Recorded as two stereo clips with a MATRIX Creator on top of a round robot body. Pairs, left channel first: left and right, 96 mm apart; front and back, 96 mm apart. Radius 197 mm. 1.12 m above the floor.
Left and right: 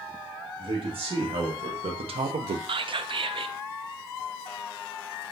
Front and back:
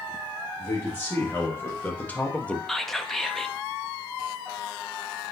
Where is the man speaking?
70° right, 1.8 m; by 2.6 s 80° right, 0.5 m.